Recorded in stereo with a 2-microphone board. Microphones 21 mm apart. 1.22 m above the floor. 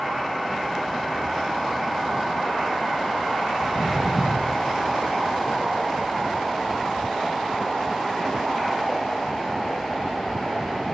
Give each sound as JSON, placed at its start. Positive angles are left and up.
{"t": 3.6, "sound": "footsteps", "side_deg": 20, "distance_m": 1.5}